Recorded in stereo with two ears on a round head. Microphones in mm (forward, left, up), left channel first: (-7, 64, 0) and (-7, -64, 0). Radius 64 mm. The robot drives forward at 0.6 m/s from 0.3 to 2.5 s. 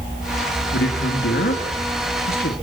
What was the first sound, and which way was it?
A man speaking, 85° left.